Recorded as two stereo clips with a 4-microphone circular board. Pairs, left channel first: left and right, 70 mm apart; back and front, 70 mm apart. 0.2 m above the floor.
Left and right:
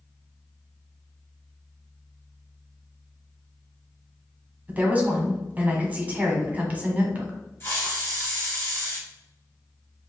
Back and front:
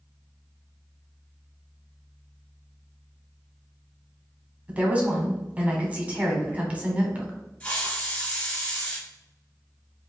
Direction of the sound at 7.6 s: 120° left.